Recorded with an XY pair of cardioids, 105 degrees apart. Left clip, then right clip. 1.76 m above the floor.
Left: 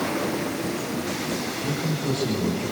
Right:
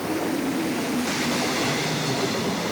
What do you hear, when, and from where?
1.6 s a man speaking: 40° left, 8.5 m